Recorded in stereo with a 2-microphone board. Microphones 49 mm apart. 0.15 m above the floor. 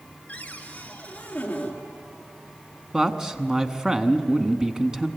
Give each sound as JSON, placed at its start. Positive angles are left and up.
{"t": 0.3, "sound": "a cupboard door", "side_deg": 30, "distance_m": 2.5}
{"t": 2.9, "sound": "a man speaking", "side_deg": -15, "distance_m": 1.0}